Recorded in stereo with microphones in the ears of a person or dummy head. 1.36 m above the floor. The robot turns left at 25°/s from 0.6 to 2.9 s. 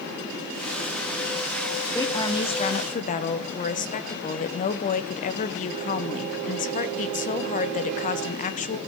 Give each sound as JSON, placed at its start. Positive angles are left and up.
{"t": 1.9, "sound": "a woman speaking", "side_deg": 20, "distance_m": 0.7}